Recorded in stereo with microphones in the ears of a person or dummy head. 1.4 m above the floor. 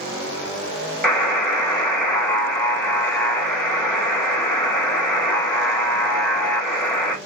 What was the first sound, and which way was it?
A buzzer, 5° left (ahead or behind).